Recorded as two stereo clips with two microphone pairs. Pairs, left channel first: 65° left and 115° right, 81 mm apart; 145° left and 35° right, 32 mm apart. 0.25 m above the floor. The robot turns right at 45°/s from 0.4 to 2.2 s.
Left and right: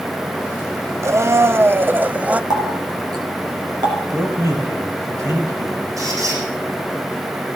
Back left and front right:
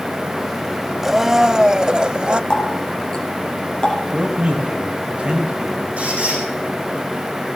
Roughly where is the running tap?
Behind right.